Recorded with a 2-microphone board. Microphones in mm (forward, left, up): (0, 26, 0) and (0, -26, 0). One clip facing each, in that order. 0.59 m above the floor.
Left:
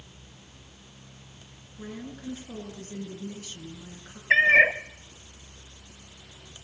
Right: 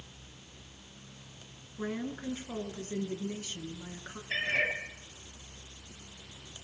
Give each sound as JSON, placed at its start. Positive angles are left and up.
{"t": 1.8, "sound": "a woman speaking", "side_deg": -30, "distance_m": 7.0}
{"t": 4.3, "sound": "a cat meowing", "side_deg": 75, "distance_m": 1.5}